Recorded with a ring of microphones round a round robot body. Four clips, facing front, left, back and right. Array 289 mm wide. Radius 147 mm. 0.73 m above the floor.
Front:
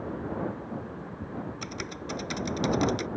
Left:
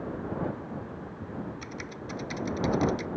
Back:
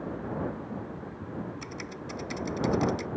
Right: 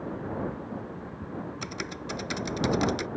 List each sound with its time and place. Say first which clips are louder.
1.6 s typing on a keyboard: right 3 dB, front 2 dB; 55° right